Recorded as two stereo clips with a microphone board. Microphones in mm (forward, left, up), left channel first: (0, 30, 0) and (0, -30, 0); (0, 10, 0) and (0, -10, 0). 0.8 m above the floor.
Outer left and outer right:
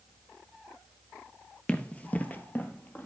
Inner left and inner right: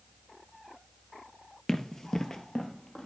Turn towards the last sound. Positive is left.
turn(degrees=30)  # may be behind; listen again after turning